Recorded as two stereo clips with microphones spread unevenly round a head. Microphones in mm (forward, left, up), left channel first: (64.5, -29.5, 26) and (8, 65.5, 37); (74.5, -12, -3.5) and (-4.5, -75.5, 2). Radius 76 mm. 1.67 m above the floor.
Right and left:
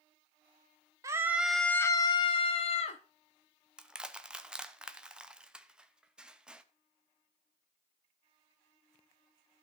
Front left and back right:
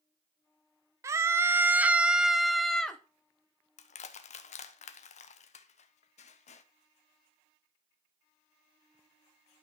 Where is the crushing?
40° left, 1.1 m.